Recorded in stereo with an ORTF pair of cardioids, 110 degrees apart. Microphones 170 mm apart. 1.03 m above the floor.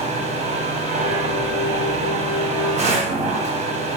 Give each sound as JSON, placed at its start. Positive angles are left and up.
{"t": 0.0, "sound": "a machine running", "azimuth_deg": -45, "distance_m": 0.7}